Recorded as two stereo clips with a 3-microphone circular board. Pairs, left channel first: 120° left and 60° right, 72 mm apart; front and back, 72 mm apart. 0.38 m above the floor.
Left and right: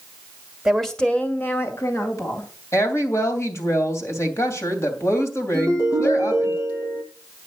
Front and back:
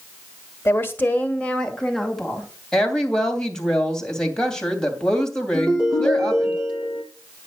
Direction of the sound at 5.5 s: 105° left.